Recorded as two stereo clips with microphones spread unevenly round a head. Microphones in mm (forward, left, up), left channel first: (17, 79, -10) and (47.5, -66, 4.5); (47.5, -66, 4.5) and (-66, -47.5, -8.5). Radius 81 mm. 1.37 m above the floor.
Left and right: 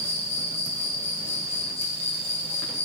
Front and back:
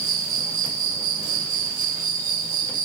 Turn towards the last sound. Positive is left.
turn(degrees=160)